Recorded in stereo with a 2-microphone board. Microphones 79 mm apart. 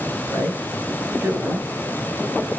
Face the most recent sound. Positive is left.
turn(degrees=-30)  # may be behind; listen again after turning